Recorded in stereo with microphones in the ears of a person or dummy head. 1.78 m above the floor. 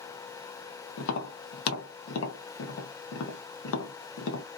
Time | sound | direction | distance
1.0 | tapping | 75° left (ahead or behind) | 1.0 m